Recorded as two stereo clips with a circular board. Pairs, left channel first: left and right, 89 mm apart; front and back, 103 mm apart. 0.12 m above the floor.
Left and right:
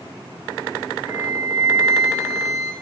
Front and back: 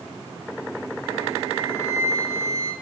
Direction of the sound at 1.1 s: 125° right.